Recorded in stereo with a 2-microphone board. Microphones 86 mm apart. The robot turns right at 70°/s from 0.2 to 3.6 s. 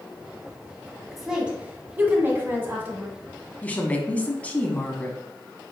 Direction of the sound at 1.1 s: Centre (ahead or behind).